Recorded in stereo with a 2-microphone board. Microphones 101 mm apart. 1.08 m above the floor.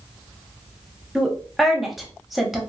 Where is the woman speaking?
Centre (ahead or behind), 0.8 m.